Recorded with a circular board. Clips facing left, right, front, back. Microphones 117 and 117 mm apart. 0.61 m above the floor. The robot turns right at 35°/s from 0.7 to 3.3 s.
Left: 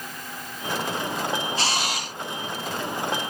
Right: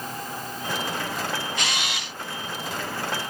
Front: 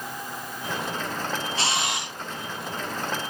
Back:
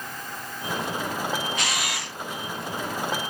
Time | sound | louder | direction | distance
1.6 | a camera shutter | left 3 dB, front 2 dB | 45° left | 0.6 m